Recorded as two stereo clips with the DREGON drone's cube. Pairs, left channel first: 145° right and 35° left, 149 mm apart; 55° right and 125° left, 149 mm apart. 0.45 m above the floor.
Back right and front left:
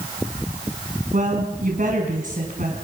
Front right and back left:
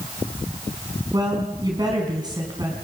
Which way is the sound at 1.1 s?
60° left.